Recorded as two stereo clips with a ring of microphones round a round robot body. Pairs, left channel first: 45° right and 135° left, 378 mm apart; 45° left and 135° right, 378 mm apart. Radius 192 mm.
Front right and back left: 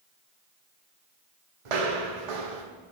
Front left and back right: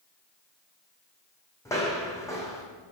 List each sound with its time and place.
1.6 s footsteps: 125° left, 1.4 m